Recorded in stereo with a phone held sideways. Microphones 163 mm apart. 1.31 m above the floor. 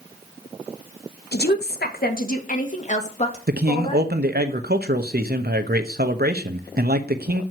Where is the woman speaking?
80° left, 1.4 m; by 4.1 s 35° left (ahead or behind), 2.5 m.